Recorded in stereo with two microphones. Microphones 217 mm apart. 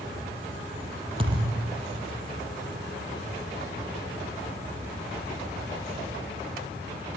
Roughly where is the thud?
Right.